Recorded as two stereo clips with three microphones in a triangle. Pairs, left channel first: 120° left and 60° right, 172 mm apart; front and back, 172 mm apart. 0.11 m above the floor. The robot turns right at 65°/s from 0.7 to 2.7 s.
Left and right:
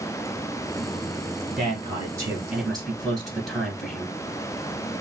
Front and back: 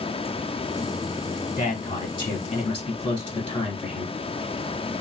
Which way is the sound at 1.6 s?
45° right.